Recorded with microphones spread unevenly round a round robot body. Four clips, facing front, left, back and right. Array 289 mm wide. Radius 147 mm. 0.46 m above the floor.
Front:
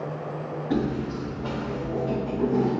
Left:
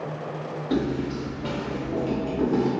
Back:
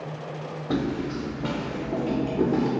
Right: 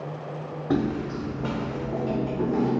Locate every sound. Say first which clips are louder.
0.7 s footsteps: even, even; 130° right, 1.8 m; by 2.7 s 160° left, 1.0 m